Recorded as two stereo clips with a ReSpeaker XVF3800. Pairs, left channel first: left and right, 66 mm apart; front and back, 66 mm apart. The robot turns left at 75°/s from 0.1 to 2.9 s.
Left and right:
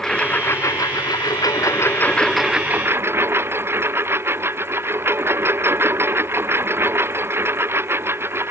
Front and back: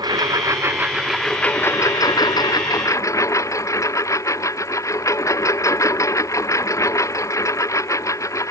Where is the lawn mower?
170° left; by 8.5 s 40° right.